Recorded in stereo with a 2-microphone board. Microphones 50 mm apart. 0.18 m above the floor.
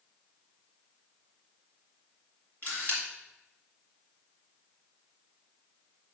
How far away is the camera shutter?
About 2.5 m.